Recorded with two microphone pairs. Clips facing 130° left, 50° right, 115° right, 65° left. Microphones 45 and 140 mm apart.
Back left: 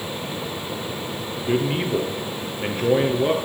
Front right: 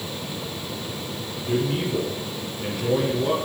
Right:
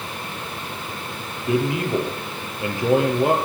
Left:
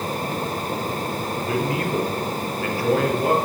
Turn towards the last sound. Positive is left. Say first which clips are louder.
# back left 2 dB, right 4 dB
turn(degrees=175)